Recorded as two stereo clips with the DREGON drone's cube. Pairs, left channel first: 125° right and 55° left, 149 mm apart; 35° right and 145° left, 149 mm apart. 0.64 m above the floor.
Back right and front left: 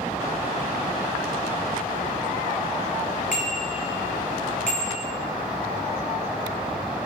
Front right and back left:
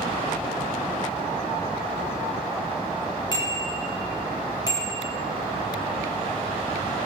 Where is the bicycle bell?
95° right, 9.5 m.